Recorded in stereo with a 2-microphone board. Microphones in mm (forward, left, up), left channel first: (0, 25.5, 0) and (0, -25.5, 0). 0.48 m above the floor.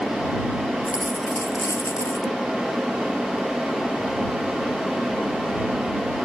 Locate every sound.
0.8 s a dropped coin: 80° left